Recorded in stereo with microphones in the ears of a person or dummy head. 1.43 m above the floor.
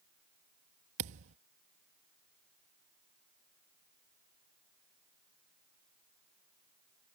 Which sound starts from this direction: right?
A thud, at 1.0 s.